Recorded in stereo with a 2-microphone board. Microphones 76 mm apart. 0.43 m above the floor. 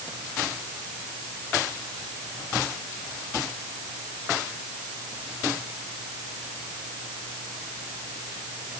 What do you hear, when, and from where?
Only background noise.